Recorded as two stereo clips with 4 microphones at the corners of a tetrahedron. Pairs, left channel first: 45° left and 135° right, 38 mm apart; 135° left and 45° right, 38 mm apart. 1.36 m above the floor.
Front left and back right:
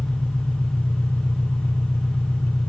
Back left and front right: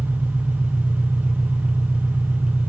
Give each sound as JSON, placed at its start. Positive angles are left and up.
{"t": 0.0, "sound": "an engine running", "azimuth_deg": 30, "distance_m": 2.5}